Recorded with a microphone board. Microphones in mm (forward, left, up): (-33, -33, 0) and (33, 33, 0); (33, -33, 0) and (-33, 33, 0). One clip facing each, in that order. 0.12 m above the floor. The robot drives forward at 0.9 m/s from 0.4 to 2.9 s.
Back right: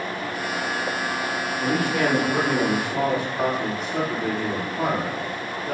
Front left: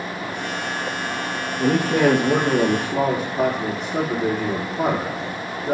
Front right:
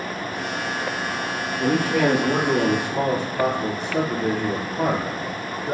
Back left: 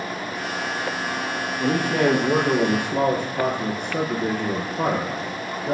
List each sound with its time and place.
1.6 s a man speaking: 60° left, 2.5 m; by 5.7 s 95° left, 2.5 m